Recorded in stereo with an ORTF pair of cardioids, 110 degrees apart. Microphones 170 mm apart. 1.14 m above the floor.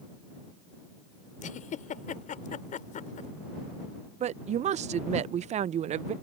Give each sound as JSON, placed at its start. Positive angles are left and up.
{"t": 1.4, "sound": "a giggle", "azimuth_deg": 50}
{"t": 4.2, "sound": "a woman speaking", "azimuth_deg": -45}